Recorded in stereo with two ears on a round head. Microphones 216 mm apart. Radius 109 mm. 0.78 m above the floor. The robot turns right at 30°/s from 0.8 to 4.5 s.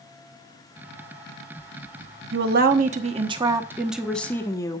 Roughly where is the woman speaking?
Ahead right.